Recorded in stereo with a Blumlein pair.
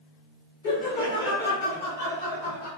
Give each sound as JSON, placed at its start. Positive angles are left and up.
{"t": 0.6, "sound": "laughter", "azimuth_deg": 50, "distance_m": 2.0}